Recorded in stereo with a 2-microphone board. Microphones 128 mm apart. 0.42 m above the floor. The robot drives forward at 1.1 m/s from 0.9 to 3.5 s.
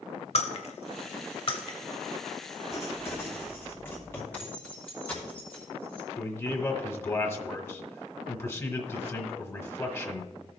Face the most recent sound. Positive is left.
turn(degrees=25)  # may be behind; listen again after turning